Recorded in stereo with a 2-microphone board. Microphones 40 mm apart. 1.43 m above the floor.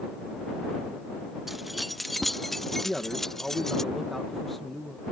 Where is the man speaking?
5° left (ahead or behind).